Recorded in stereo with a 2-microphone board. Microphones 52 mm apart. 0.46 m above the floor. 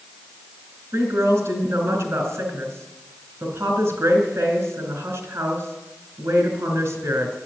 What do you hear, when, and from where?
0.9 s a woman speaking: 65° right (ahead or behind), 3 m